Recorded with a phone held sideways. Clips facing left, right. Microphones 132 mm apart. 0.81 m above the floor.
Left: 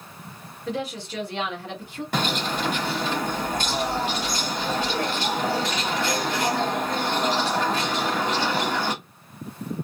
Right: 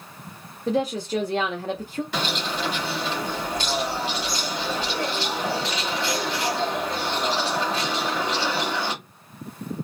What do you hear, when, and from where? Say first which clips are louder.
0.7 s a woman speaking: right 6 dB; 40° right (ahead or behind), 0.8 m
2.1 s a bird: left 5 dB; 50° left (ahead or behind), 1.4 m